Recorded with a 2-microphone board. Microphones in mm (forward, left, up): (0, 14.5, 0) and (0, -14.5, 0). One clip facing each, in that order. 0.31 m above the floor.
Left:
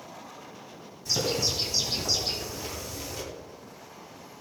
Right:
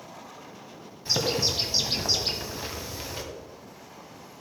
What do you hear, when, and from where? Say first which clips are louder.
1.1 s a bird: right 2 dB; 35° right (ahead or behind), 2 m